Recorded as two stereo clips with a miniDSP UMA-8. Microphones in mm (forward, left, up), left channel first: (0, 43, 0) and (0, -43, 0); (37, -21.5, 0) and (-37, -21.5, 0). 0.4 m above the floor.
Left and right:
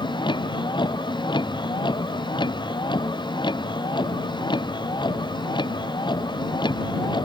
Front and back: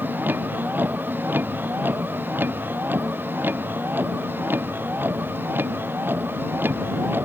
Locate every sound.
0.0 s a vehicle: 115° left; by 7.3 s 120° left